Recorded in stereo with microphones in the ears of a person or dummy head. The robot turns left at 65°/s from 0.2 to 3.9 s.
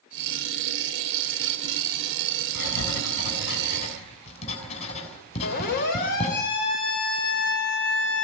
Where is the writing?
55° left (ahead or behind), 7 m; by 6.3 s 35° left (ahead or behind), 7 m.